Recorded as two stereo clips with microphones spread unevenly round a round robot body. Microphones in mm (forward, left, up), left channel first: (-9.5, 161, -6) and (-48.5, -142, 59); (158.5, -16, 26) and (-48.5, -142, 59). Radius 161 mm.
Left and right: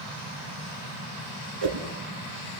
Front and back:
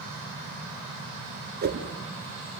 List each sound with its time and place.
1.6 s a whoosh: 100° right, 3 m